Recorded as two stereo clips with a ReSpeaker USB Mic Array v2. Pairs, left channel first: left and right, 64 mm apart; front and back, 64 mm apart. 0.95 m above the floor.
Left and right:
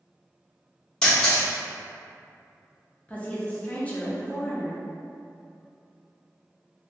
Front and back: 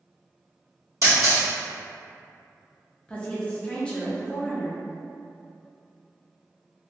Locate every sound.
1.0 s a camera shutter: 165° left, 1.2 m
3.1 s a woman speaking: 55° left, 0.5 m